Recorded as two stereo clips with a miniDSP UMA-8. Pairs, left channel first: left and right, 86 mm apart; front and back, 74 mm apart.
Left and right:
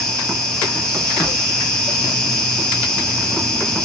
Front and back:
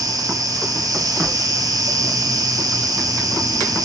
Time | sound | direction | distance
0.0 | an insect | 170° left | 1.8 m